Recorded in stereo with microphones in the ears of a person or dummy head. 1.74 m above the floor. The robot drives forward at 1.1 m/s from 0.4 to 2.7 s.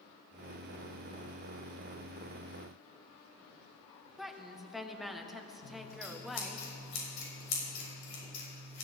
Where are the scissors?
80° left, 6 m.